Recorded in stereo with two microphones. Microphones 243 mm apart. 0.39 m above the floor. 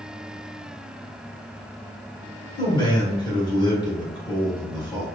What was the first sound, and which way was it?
A man speaking, 20° left (ahead or behind).